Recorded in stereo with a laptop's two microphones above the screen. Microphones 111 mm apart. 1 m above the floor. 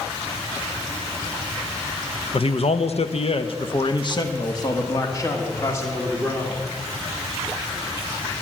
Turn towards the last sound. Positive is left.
turn(degrees=20)  # may be behind; listen again after turning